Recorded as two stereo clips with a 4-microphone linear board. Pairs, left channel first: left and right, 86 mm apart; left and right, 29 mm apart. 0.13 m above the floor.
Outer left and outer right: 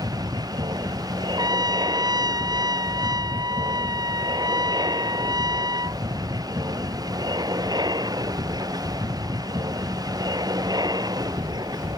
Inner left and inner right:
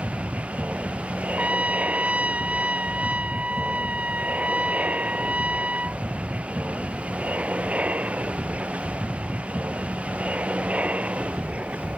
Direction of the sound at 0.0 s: 60° right (ahead or behind).